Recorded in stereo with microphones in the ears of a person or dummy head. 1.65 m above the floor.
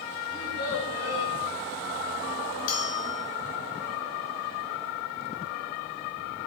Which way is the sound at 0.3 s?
85° left.